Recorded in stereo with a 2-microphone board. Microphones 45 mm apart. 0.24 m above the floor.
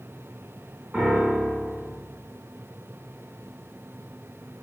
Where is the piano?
30° right (ahead or behind), 1.9 m.